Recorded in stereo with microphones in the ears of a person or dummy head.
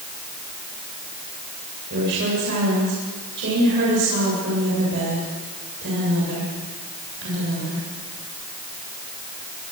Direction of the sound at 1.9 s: 60° right (ahead or behind).